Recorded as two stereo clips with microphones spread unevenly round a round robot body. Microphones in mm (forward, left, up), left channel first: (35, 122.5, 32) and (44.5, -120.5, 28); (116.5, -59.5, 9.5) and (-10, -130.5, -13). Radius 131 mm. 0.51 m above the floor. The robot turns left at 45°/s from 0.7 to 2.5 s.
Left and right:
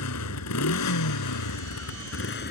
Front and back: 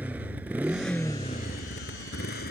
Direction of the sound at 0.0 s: 125° left.